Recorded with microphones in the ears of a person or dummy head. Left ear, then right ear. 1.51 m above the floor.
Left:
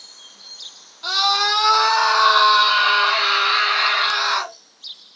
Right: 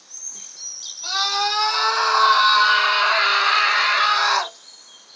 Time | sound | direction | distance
1.0 | a scream | 25° left (ahead or behind) | 1.4 m